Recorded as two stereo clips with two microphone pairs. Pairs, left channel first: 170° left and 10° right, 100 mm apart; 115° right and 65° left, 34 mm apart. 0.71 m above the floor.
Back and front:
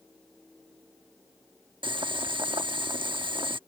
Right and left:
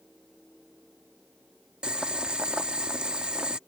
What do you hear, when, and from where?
1.8 s boiling: 5° left